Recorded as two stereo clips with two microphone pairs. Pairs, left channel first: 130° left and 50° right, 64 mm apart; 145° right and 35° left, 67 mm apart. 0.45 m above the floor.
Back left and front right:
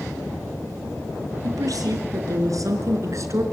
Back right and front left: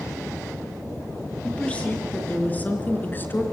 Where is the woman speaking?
70° right, 6 m; by 3.4 s 85° right, 4.5 m.